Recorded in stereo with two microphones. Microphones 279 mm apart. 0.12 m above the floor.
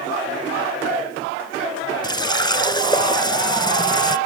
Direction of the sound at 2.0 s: 15° left (ahead or behind).